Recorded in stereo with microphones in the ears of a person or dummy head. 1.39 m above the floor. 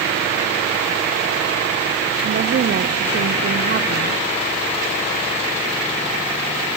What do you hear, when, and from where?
2.2 s a woman speaking: 45° right (ahead or behind), 0.8 m